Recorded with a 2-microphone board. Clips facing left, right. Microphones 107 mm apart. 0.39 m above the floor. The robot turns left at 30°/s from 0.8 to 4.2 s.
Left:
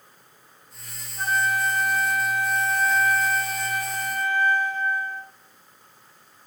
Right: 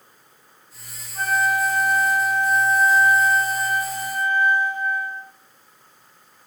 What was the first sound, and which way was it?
A flute, 70° right.